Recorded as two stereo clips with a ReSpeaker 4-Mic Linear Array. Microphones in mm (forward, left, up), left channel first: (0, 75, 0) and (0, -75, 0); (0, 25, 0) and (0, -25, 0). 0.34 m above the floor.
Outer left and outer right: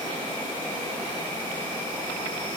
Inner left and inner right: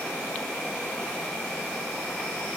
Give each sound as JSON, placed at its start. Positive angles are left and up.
{"t": 0.0, "sound": "an insect", "side_deg": 10, "distance_m": 1.4}